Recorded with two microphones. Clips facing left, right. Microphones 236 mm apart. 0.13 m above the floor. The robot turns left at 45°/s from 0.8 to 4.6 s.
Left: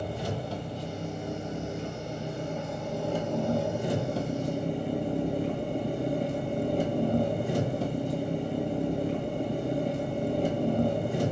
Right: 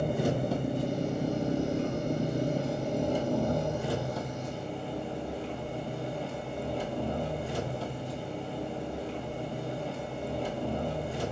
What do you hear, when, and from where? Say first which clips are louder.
0.0 s an engine running: right 5 dB; 60° right, 0.8 m; by 11.3 s 130° left, 0.8 m